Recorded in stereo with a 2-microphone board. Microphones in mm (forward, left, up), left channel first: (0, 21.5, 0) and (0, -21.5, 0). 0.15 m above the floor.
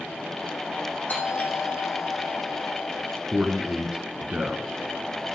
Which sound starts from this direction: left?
A doorbell, at 1.1 s.